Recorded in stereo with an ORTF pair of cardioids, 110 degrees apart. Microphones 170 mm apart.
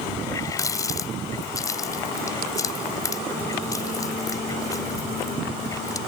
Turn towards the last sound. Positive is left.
turn(degrees=20)